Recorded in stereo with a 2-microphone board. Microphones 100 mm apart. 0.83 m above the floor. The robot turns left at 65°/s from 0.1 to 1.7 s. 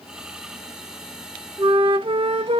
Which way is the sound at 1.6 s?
55° right (ahead or behind).